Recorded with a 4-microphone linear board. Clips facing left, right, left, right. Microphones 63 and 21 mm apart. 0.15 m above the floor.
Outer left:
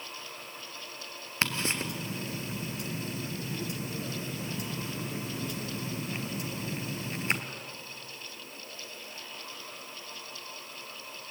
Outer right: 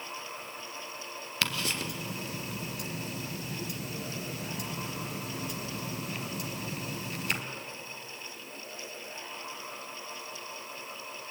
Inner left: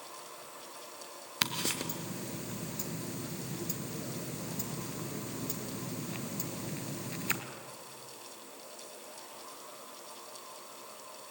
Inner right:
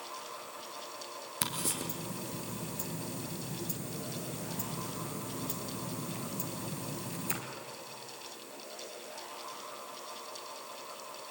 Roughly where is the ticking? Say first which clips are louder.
Outer left 2 dB, inner left 4 dB; left.